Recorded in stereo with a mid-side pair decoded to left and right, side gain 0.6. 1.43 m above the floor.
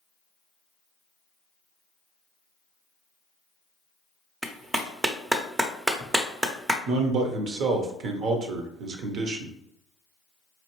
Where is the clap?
15° right, 0.6 m.